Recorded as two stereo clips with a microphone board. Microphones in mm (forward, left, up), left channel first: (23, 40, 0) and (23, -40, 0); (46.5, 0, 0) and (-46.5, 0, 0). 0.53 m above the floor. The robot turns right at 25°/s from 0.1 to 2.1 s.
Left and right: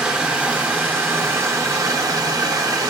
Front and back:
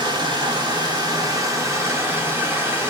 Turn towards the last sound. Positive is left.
turn(degrees=-120)